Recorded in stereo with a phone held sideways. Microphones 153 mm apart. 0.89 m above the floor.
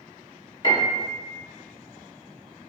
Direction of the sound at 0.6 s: 30° left (ahead or behind).